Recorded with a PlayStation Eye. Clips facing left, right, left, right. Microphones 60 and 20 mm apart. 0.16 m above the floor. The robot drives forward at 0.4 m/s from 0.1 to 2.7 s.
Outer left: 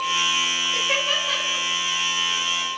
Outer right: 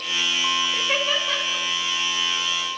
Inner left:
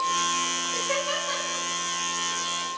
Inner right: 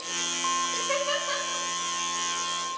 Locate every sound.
0.7 s laughter: 5° right (ahead or behind), 1.2 m